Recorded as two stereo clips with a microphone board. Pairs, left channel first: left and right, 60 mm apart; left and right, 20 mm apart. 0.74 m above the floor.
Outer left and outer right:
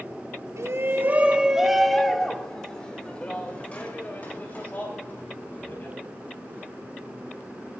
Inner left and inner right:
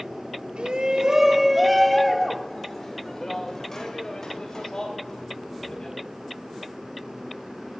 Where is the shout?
50° right (ahead or behind), 0.9 m; by 6.0 s 30° left (ahead or behind), 4 m.